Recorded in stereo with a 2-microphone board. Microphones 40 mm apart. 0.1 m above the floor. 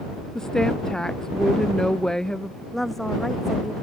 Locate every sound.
0.3 s a woman speaking: 15° left (ahead or behind)
2.7 s a woman speaking: 5° left (ahead or behind)